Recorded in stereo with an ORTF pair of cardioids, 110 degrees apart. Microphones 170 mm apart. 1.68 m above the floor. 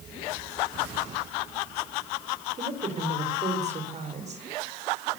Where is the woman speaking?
40° right, 5.5 m.